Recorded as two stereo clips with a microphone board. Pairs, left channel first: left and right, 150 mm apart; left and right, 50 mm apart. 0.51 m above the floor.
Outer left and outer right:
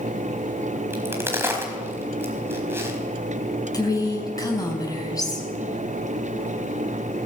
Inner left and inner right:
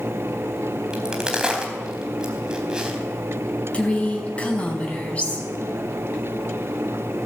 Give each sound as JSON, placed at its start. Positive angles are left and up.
{"t": 0.9, "sound": "a crack", "side_deg": -15, "distance_m": 4.0}
{"t": 3.7, "sound": "a woman speaking", "side_deg": 25, "distance_m": 5.0}